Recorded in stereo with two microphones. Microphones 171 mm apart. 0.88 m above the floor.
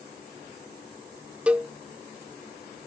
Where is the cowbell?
5° right (ahead or behind).